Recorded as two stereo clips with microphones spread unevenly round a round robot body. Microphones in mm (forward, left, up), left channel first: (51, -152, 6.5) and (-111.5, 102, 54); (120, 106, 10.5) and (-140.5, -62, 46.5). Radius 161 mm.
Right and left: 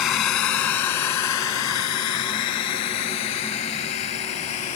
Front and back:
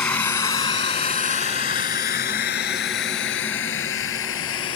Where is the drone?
50° right; by 4.8 s 15° right.